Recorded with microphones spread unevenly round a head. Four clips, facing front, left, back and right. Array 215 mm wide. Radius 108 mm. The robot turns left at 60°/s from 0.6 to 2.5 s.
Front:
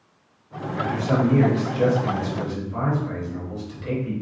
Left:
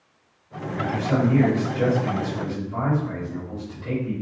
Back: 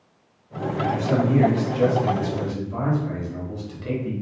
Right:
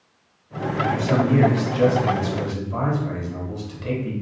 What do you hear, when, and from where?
0.8 s a man speaking: 10° right, 2.0 m; by 4.1 s 115° right, 2.0 m